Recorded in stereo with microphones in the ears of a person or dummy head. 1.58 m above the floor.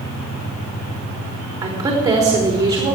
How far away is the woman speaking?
About 4 m.